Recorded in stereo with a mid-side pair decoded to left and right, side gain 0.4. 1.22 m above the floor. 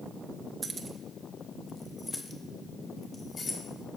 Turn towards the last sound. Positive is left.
turn(degrees=45)